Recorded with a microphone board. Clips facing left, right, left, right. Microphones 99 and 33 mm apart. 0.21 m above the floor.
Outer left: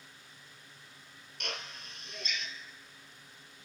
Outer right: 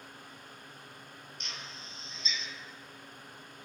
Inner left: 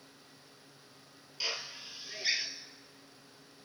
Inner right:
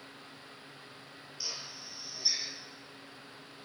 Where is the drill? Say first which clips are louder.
Outer left 6 dB, inner left 4 dB; 65° left (ahead or behind), 1.8 m.